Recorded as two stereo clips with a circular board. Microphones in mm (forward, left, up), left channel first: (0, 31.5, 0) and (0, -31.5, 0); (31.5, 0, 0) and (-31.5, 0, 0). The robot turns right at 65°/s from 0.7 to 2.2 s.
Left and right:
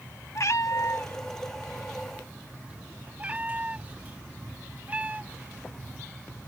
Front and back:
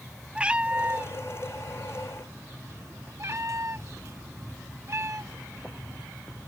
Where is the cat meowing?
110° left; by 6.0 s 150° right.